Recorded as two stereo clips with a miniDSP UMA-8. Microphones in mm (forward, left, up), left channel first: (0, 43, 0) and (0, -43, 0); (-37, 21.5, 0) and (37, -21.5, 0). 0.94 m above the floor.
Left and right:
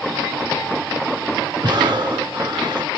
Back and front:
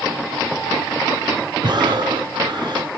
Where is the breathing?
55° right, 1.1 m.